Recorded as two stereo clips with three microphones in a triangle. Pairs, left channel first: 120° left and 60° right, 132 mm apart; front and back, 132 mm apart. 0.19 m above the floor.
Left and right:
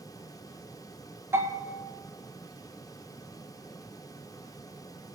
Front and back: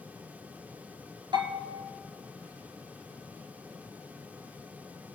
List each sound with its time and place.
1.3 s a bell: 130° right, 2.0 m